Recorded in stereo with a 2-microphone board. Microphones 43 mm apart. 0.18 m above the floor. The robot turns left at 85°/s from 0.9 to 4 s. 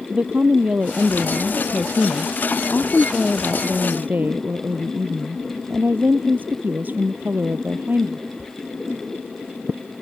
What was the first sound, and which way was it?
A woman speaking, 145° right.